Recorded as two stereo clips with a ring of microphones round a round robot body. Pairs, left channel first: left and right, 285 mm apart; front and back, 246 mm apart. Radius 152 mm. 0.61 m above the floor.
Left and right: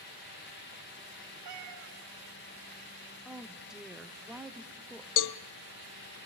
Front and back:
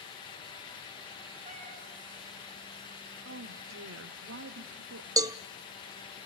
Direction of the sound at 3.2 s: 175° right.